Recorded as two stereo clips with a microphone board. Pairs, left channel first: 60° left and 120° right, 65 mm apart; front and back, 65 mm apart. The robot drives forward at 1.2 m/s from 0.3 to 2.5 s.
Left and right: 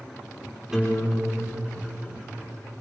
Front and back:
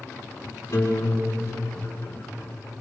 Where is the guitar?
45° right, 10 m; by 2.7 s 55° right, 8.5 m.